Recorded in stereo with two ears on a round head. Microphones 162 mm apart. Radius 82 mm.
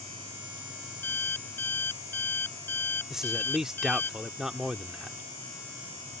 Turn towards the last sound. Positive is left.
turn(degrees=-5)  # may be behind; listen again after turning